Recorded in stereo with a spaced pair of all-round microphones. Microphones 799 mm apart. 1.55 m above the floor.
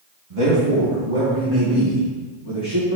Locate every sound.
0.3 s a man speaking: 40° right (ahead or behind), 1.9 m; by 3.0 s 35° right (ahead or behind), 4 m